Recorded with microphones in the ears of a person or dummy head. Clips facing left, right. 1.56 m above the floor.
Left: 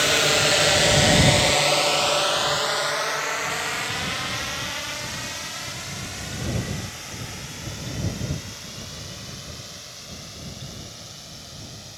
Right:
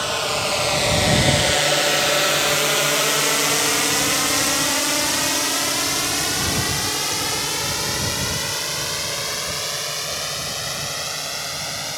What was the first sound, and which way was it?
A drone, 30° left (ahead or behind).